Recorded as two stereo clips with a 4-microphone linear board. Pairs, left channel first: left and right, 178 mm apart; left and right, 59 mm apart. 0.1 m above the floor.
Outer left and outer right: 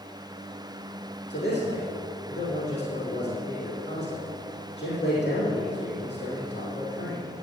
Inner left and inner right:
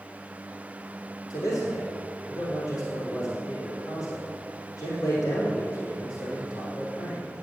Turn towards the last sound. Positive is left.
turn(degrees=75)  # may be behind; listen again after turning